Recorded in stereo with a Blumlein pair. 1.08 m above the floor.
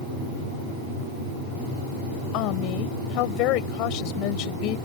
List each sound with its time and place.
2.3 s a woman speaking: 40° left